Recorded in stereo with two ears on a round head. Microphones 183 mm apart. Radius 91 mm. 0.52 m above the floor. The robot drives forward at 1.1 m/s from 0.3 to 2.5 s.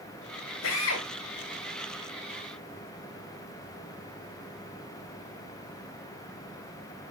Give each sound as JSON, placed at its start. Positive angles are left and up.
{"t": 0.6, "sound": "a drill", "side_deg": 75, "distance_m": 2.0}